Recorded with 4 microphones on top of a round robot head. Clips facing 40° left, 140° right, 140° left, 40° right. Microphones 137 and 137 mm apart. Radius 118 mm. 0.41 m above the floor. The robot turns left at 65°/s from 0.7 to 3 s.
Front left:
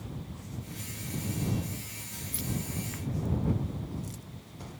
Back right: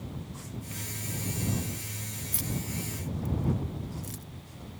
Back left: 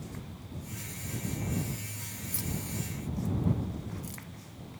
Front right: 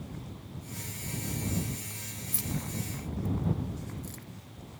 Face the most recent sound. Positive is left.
turn(degrees=-145)